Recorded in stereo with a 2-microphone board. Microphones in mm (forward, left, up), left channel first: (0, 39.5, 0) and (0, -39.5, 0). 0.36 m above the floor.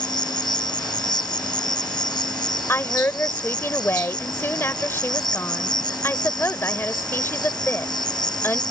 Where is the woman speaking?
30° left (ahead or behind).